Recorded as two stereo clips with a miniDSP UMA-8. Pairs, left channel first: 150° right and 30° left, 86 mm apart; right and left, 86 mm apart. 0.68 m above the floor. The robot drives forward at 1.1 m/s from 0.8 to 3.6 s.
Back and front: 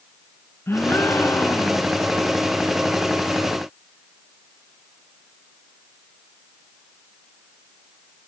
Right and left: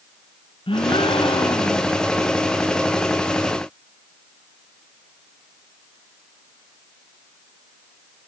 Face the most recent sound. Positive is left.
turn(degrees=-100)